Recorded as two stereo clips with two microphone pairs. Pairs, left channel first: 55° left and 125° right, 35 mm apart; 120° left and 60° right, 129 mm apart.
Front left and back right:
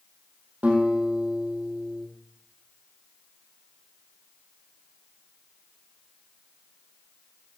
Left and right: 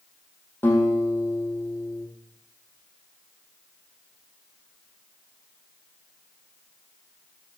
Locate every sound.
0.6 s a guitar: 165° right, 3.5 m